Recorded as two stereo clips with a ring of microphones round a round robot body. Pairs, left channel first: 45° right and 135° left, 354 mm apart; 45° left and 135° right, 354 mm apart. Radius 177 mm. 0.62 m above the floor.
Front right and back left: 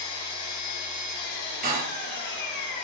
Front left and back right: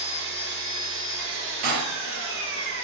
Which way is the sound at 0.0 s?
80° right.